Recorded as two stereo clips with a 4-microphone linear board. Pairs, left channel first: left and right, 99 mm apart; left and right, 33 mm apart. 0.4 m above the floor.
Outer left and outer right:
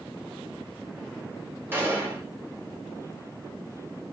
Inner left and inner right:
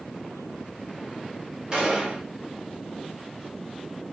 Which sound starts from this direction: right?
A gunshot, at 1.7 s.